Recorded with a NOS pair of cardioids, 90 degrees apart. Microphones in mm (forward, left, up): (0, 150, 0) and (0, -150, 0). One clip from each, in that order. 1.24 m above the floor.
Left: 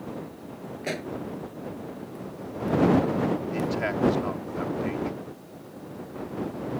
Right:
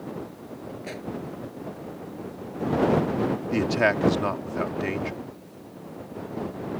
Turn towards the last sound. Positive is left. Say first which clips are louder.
# right 6 dB
turn(degrees=-55)